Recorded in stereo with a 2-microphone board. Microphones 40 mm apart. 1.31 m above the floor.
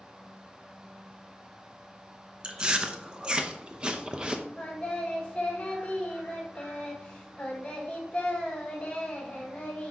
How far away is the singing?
About 2.0 m.